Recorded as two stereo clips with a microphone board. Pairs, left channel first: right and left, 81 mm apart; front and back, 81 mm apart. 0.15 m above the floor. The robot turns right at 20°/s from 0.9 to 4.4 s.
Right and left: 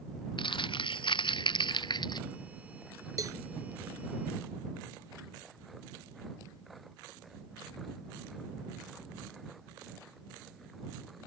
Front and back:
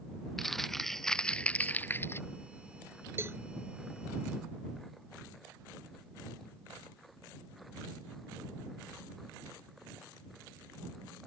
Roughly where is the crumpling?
Right.